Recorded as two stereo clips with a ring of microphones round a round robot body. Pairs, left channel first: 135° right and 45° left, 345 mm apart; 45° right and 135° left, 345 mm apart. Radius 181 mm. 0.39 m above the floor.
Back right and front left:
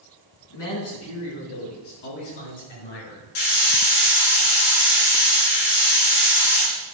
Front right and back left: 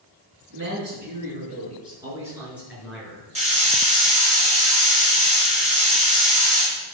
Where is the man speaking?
170° right, 4.5 m; by 3.2 s 130° right, 6 m.